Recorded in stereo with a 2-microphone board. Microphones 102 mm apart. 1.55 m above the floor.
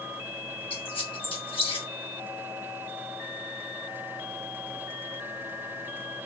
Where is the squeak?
65° left (ahead or behind), 2.0 m.